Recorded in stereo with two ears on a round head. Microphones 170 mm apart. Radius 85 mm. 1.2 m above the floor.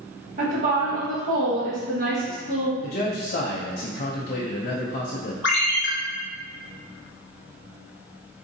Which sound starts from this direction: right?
A woman speaking, at 0.4 s.